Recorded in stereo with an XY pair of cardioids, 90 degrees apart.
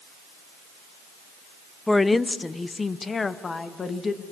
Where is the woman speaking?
15° left, 0.7 m; by 4.2 s 45° left, 2 m.